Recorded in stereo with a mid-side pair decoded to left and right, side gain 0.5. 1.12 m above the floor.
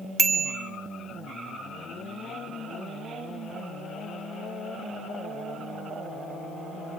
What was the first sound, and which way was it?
A bicycle bell, 35° right.